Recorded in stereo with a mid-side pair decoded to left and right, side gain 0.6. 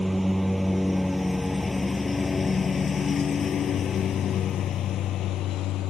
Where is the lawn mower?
5° right; by 5.9 s 65° left.